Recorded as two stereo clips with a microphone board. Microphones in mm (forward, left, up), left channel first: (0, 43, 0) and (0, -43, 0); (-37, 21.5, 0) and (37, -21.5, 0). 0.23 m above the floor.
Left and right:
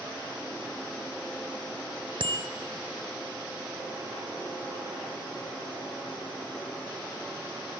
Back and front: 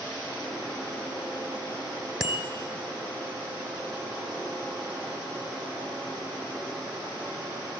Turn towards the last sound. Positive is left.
turn(degrees=-110)